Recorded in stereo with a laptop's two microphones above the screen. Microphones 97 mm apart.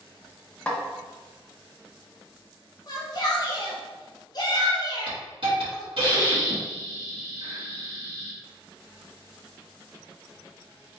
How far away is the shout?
About 1.1 m.